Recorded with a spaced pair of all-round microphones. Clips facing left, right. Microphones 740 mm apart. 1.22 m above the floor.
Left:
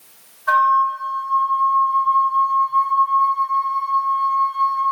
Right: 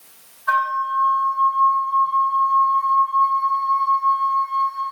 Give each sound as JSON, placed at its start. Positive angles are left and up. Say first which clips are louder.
{"t": 0.5, "sound": "a flute", "louder": "left 5 dB", "side_deg": 60, "distance_m": 0.7}